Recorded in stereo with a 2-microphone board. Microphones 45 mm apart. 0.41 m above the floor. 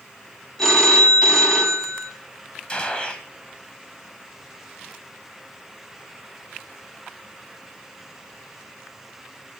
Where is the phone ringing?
10° left (ahead or behind), 2 m.